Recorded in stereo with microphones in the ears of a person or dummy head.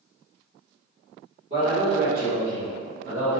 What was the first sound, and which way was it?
A man speaking, 35° right (ahead or behind).